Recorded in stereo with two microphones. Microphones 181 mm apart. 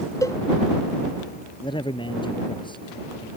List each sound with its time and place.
0.2 s a cowbell: 20° left (ahead or behind)
1.6 s a man speaking: 25° left (ahead or behind)